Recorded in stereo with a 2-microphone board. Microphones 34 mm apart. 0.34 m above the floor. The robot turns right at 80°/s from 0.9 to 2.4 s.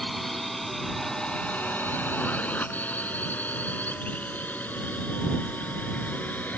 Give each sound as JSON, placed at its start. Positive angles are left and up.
{"t": 0.0, "sound": "a drone", "side_deg": 0}